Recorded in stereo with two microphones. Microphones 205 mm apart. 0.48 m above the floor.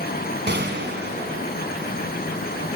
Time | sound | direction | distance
0.5 | a gunshot | 50° right (ahead or behind) | 4.5 m